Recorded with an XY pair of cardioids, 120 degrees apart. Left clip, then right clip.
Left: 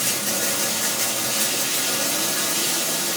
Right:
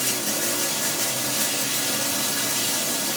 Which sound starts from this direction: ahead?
Running water, at 0.0 s.